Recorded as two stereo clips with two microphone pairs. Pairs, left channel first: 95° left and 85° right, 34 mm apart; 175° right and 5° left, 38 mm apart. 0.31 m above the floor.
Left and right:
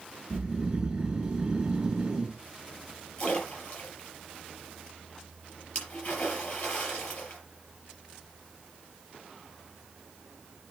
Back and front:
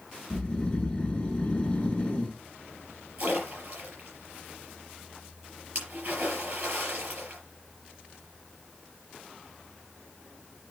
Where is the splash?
55° left, 5.5 m.